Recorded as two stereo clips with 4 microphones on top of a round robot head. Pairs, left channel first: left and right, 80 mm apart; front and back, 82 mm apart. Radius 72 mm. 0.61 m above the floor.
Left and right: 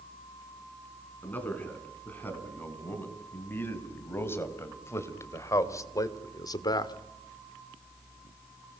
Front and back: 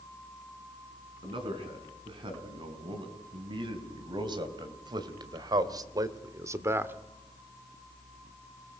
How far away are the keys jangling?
I don't hear keys jangling.